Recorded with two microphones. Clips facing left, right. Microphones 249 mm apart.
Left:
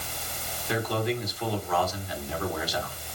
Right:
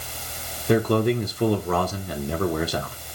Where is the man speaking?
60° right (ahead or behind), 1.3 m.